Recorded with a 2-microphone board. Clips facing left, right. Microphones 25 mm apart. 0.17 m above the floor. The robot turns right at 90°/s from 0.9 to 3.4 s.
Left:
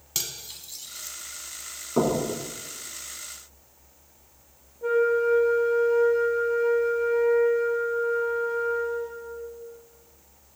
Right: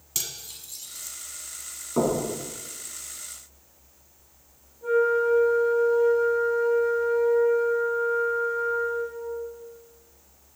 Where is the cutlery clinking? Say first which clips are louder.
Left 1 dB; 20° left (ahead or behind), 0.8 m.